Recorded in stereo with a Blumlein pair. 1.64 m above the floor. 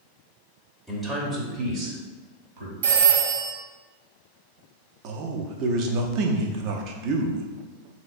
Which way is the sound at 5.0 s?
40° right.